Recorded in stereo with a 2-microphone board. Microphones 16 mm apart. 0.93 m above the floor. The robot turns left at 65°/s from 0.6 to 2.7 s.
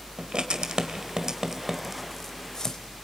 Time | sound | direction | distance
0.2 | writing | 75° right (ahead or behind) | 1.7 m